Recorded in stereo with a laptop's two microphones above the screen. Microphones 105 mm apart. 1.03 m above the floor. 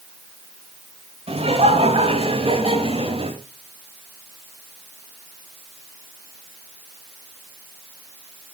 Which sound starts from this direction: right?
Laughter, at 1.3 s.